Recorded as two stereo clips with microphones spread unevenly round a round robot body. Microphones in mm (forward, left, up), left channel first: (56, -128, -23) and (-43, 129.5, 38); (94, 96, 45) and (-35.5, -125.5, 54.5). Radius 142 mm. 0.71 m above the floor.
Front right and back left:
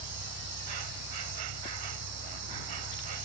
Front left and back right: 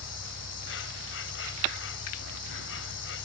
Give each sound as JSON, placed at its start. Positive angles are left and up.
{"t": 0.0, "sound": "an insect", "azimuth_deg": 105}